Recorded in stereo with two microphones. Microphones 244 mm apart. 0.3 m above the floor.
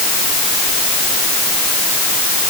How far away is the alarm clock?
No alarm clock in this recording.